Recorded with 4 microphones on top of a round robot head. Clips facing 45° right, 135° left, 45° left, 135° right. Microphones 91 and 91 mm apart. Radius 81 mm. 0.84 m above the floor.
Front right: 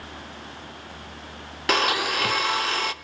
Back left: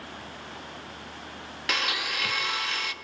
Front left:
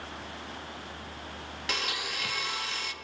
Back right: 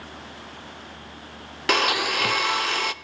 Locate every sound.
1.7 s a blender: 100° right, 0.5 m